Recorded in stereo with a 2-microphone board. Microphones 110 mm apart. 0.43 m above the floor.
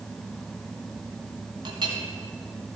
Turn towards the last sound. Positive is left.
turn(degrees=-45)  # may be behind; listen again after turning